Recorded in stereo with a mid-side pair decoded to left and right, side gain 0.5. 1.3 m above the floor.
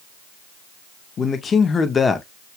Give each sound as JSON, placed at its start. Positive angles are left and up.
{"t": 1.2, "sound": "a man speaking", "azimuth_deg": 45, "distance_m": 1.5}